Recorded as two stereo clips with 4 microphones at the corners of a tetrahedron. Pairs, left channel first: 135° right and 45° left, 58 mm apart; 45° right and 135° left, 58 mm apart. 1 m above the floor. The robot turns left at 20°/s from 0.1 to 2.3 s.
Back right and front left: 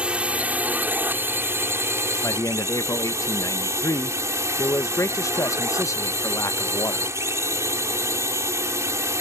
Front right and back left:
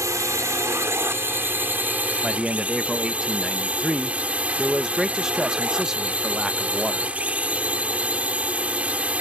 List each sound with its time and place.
0.0 s a drone: 115° left; by 9.2 s 70° left
2.2 s a man speaking: 145° right